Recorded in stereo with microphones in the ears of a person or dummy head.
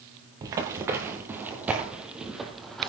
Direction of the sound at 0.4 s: 15° right (ahead or behind).